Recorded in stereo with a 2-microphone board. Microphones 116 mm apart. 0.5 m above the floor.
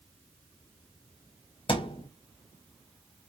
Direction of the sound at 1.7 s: 45° left (ahead or behind).